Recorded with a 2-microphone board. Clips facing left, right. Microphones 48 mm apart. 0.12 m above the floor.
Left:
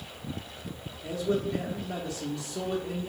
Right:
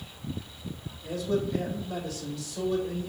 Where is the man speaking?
70° left (ahead or behind), 3 m.